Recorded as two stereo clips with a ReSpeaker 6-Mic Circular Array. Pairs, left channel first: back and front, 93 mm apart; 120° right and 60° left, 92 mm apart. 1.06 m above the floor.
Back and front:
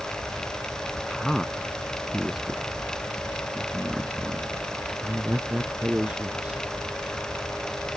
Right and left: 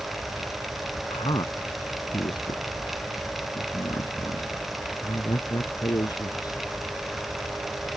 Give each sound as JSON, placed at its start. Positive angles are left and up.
{"t": 1.1, "sound": "a man speaking", "azimuth_deg": -95}